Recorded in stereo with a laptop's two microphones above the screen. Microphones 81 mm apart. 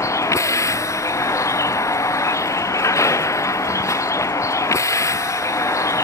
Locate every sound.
0.0 s a vehicle: 40° left (ahead or behind)